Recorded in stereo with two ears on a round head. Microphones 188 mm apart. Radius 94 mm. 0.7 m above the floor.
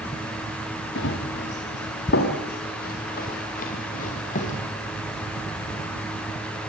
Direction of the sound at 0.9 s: 60° left (ahead or behind).